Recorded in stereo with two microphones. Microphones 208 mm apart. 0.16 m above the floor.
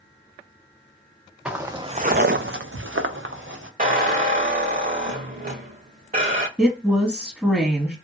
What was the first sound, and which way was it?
Footsteps, 5° right (ahead or behind).